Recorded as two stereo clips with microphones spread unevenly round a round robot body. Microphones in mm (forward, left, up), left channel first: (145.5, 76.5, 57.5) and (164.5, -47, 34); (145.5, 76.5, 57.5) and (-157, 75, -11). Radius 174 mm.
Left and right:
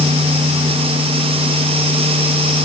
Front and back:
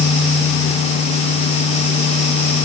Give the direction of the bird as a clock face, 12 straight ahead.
I don't hear a bird.